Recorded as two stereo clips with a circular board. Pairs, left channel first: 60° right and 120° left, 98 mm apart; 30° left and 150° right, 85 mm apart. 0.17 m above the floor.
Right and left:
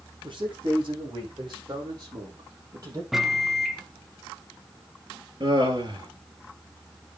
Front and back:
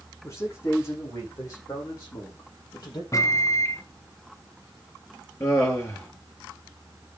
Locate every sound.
0.2 s a man speaking: 85° left, 8.5 m; by 3.0 s 70° left, 5 m
3.1 s a microwave: 35° left, 1.1 m
5.4 s laughter: 80° left, 4 m